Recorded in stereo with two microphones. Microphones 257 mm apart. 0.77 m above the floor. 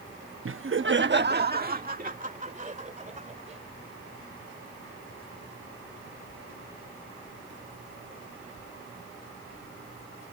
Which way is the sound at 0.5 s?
55° right (ahead or behind).